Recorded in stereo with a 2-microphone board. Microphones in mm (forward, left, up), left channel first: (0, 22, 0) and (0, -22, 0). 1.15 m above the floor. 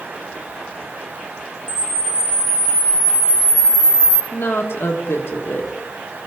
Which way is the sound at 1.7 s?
15° left (ahead or behind).